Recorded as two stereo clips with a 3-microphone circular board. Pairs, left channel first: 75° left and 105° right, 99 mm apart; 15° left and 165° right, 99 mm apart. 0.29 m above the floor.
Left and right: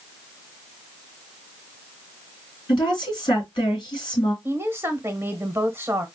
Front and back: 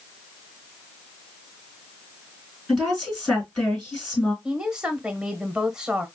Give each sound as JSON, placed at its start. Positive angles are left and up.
{"t": 2.7, "sound": "a woman speaking", "azimuth_deg": 105, "distance_m": 3.5}
{"t": 4.4, "sound": "a woman speaking", "azimuth_deg": -95, "distance_m": 1.1}